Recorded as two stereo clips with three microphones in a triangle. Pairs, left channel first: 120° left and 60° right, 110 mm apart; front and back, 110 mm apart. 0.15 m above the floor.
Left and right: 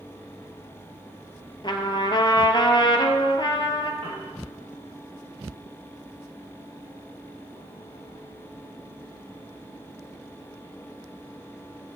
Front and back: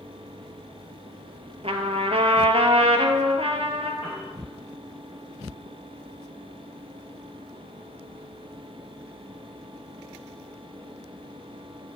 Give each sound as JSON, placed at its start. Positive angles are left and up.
{"t": 1.6, "sound": "a trumpet", "azimuth_deg": 160, "distance_m": 0.7}
{"t": 4.0, "sound": "a piano", "azimuth_deg": -40, "distance_m": 3.0}